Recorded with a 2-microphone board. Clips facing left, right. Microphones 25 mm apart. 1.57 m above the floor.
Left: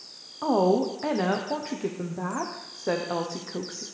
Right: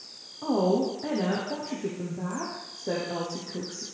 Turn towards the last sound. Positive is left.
turn(degrees=80)